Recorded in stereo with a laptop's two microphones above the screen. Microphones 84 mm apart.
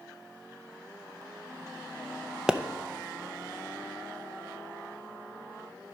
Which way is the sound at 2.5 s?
10° right (ahead or behind).